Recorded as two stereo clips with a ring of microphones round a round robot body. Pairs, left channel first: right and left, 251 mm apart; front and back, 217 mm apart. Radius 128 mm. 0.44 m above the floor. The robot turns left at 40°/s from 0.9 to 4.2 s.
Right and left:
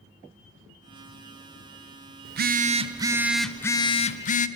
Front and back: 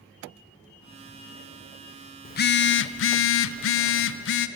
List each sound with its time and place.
2.2 s a phone buzzing: 45° left, 0.5 m; by 4.5 s 30° right, 0.5 m